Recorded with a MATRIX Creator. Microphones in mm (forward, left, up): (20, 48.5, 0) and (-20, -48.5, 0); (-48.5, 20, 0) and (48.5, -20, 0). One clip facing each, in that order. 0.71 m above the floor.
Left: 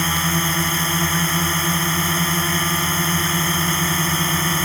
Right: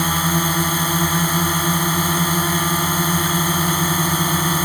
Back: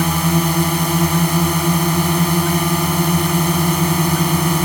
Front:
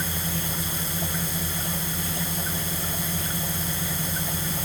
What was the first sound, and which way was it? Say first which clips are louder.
A drone: right 2 dB, back 15 dB; 170° left.